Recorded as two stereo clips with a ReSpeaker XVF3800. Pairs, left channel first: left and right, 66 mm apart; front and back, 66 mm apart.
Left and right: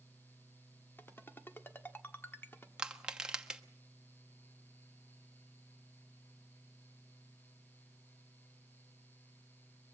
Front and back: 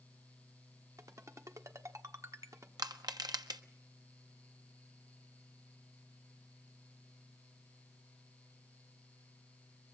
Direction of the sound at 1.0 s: 145° left.